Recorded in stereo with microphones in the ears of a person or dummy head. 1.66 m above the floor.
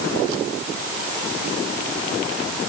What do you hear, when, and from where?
Only background noise.